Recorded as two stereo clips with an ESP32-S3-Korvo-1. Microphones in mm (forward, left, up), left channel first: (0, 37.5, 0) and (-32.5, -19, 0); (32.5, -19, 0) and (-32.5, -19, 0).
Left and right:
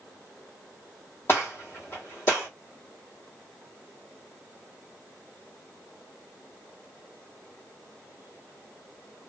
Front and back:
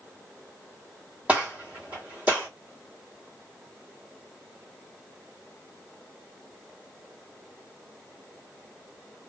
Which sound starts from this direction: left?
A gunshot, at 1.3 s.